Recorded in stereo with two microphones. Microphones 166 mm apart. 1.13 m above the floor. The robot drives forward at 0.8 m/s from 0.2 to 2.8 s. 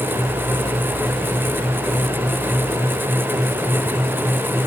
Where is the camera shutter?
No camera shutter in this recording.